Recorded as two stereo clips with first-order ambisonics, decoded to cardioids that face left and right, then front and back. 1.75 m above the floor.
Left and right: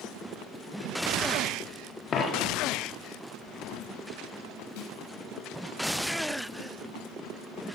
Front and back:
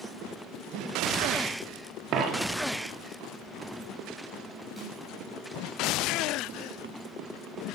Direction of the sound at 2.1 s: 150° left.